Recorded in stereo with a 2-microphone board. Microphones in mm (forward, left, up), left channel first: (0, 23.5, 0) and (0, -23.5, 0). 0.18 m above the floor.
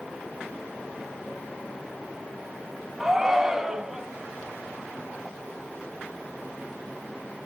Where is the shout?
10° right (ahead or behind), 1.2 m.